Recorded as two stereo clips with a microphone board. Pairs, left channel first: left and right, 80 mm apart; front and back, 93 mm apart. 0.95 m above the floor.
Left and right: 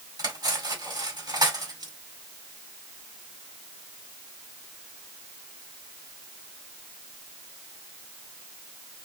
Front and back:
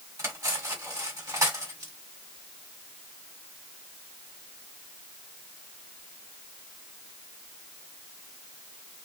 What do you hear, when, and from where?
0.2 s cutlery clinking: 120° right, 1.8 m